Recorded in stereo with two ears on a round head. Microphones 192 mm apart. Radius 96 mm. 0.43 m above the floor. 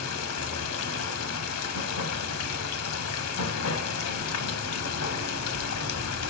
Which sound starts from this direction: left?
Running water, at 0.0 s.